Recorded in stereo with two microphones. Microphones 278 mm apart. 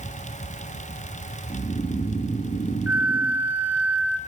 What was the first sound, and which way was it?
Snoring, 20° left (ahead or behind).